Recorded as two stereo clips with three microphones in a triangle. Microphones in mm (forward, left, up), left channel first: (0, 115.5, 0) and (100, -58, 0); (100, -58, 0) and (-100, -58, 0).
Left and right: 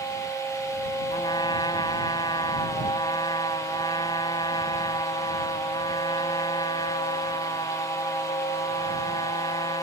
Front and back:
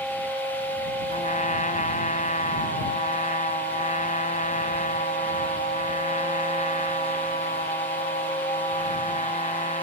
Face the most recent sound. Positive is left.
turn(degrees=50)